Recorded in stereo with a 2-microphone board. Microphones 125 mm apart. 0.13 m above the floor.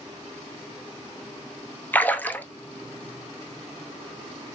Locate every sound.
1.9 s a splash: 15° left (ahead or behind), 0.7 m